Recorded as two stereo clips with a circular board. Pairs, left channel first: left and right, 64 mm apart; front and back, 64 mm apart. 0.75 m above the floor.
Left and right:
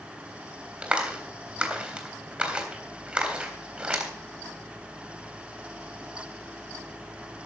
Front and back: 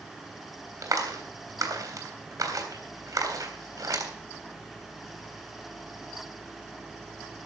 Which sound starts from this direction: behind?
A clap, at 0.8 s.